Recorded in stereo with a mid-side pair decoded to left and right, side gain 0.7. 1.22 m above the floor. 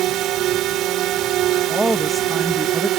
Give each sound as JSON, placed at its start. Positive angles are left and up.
{"t": 0.0, "sound": "a drone", "azimuth_deg": -50}
{"t": 1.7, "sound": "a woman speaking", "azimuth_deg": -5}